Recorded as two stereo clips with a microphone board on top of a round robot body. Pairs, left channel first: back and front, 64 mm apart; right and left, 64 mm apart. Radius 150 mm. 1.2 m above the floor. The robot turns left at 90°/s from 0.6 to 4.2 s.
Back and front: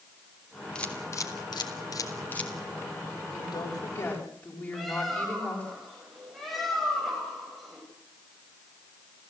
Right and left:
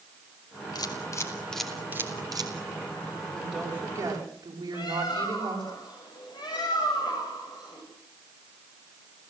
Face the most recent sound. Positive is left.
turn(degrees=-90)